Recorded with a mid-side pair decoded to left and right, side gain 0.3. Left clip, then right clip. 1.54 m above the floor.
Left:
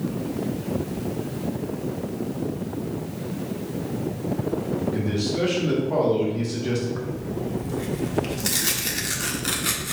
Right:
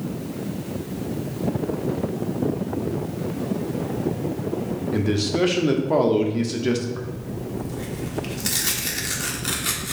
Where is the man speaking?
65° right, 0.9 m.